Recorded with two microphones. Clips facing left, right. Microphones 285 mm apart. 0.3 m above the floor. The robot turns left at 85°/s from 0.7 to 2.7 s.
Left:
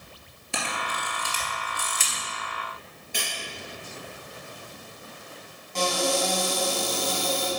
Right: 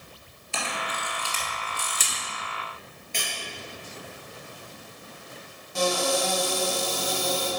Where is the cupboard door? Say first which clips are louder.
Right 1 dB; 10° right (ahead or behind), 2 m.